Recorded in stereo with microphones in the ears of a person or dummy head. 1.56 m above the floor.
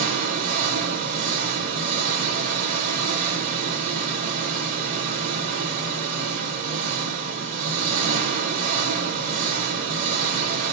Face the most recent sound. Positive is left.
turn(degrees=-45)  # may be behind; listen again after turning